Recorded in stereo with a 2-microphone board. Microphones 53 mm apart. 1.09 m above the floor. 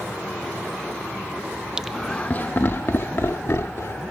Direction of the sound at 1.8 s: 15° right (ahead or behind).